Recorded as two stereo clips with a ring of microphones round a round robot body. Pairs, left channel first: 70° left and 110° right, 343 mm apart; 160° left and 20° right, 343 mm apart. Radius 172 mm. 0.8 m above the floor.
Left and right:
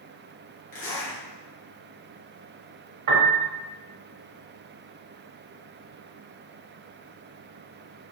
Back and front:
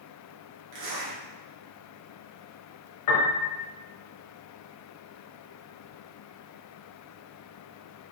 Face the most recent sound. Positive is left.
turn(degrees=-155)